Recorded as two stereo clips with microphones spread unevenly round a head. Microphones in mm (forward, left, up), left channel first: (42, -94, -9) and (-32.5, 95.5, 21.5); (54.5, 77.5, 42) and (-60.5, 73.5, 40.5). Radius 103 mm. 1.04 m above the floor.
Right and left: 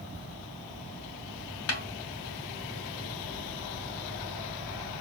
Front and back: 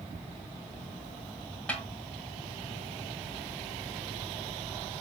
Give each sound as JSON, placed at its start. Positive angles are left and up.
{"t": 1.7, "sound": "a snare drum", "azimuth_deg": -85, "distance_m": 1.3}